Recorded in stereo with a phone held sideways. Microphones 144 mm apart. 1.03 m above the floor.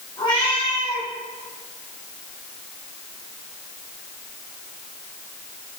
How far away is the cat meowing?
About 4.5 m.